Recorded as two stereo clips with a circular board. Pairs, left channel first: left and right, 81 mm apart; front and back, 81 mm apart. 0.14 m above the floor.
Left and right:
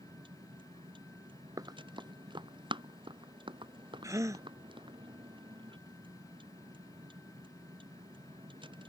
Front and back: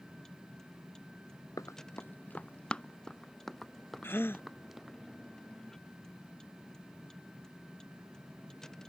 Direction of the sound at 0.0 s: 85° right.